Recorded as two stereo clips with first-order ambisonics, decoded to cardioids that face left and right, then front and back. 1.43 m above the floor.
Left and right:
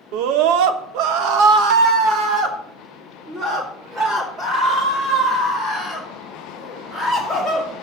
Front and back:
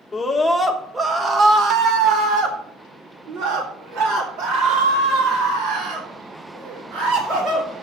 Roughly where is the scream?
Right.